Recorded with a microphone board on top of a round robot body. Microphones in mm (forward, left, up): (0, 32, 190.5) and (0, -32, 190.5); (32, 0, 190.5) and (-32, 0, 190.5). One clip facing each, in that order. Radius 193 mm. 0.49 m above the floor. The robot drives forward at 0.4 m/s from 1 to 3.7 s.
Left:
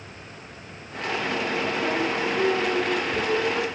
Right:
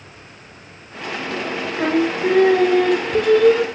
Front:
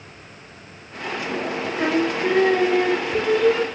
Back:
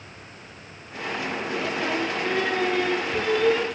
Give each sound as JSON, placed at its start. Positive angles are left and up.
{"t": 1.8, "sound": "singing", "azimuth_deg": -60, "distance_m": 1.8}